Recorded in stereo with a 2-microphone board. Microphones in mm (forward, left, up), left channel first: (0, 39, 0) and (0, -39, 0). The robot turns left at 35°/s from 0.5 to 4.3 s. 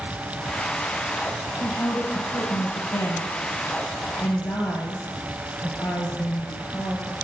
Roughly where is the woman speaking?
Behind left.